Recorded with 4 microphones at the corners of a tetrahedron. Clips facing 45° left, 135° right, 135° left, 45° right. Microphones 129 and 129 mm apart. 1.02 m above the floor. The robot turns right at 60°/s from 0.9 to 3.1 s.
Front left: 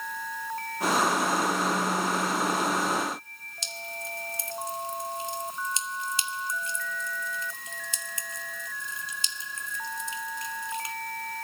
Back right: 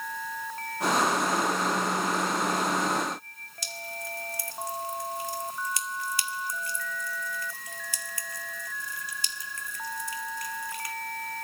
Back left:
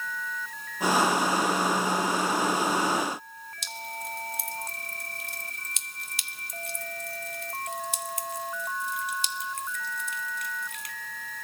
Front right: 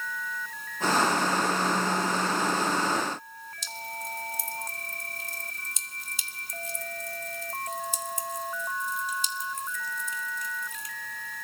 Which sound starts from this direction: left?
Dripping, at 3.6 s.